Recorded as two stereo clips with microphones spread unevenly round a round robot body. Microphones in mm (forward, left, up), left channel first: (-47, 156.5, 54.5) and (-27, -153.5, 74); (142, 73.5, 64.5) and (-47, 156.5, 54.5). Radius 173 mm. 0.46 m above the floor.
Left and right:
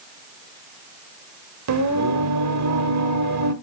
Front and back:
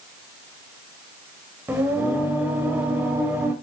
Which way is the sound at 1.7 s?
120° right.